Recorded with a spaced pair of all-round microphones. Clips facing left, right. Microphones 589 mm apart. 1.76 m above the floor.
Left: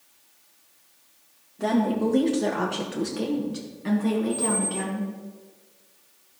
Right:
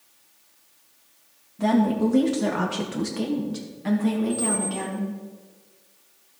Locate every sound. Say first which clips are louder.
1.6 s a woman speaking: right 2 dB; 30° right (ahead or behind), 1.0 m; by 5.1 s 10° right (ahead or behind), 1.8 m
4.3 s a squeak: right 1 dB; 65° left (ahead or behind), 2.0 m